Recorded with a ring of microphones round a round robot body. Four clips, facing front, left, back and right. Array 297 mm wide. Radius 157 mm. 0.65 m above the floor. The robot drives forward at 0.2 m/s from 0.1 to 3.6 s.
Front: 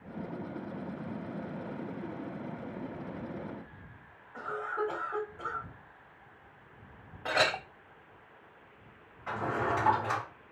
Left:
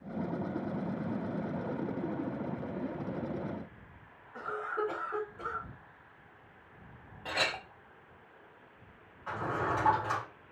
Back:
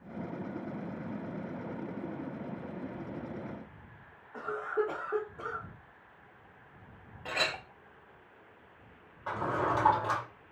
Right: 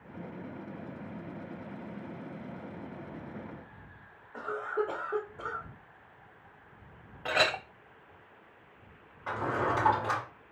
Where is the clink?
45° right, 0.6 m.